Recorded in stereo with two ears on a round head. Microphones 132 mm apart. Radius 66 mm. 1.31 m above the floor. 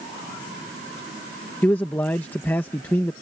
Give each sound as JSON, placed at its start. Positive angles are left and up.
{"t": 1.6, "sound": "a man speaking", "side_deg": 15}